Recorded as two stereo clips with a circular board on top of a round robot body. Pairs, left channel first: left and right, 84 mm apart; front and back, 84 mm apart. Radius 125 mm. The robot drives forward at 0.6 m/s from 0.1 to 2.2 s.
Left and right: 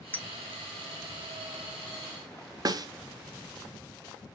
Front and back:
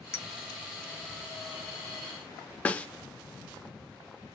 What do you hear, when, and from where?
0.1 s a clink: 35° left, 0.6 m; by 0.3 s 45° left, 0.6 m
2.6 s a snare drum: 70° right, 0.6 m